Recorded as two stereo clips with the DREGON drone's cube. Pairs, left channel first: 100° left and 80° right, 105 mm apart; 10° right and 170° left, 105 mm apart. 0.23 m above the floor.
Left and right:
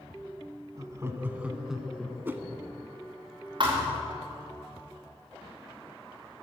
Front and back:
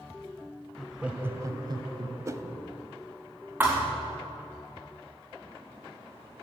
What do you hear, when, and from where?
0.8 s laughter: 90° right, 1.3 m; by 2.1 s 175° right, 2.0 m
2.2 s a whoosh: 140° right, 0.8 m
3.6 s a thud: 120° right, 3.5 m